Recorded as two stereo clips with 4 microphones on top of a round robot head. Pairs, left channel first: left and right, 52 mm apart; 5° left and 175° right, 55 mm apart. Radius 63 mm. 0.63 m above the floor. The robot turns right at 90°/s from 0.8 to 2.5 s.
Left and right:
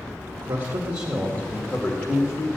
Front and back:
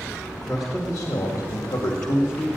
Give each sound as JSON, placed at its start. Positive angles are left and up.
{"t": 0.3, "sound": "a man speaking", "azimuth_deg": -85, "distance_m": 1.9}